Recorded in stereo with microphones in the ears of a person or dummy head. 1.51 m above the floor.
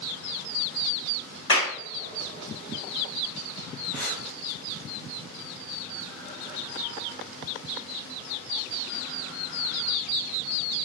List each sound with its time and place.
1.5 s a clap: 25° left (ahead or behind), 1.8 m
3.9 s breathing: centre (ahead or behind), 1.0 m